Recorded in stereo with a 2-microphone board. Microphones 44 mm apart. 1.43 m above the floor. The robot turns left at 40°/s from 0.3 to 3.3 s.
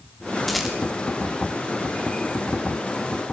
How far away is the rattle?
About 3 m.